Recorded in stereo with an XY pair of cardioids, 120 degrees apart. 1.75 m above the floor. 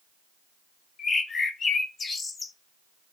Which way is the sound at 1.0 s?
35° left.